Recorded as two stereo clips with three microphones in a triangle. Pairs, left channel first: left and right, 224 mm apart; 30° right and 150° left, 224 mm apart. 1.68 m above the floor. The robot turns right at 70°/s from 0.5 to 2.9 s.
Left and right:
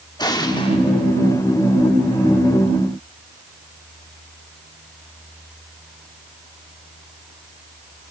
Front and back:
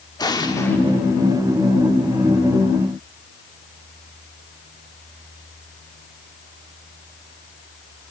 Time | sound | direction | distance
0.2 | an explosion | 30° left | 1.4 m